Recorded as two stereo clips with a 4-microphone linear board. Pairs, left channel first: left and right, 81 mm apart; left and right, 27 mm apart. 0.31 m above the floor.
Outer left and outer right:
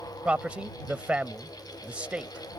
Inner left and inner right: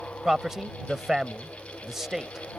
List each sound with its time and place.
0.2 s a man speaking: 15° right (ahead or behind)